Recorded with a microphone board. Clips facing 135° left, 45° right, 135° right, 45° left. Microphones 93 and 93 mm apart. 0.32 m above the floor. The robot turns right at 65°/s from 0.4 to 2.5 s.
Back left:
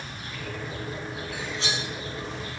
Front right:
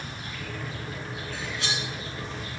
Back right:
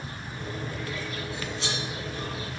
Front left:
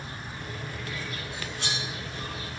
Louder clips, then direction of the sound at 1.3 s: Back left 1 dB, back right 2 dB; 55° left.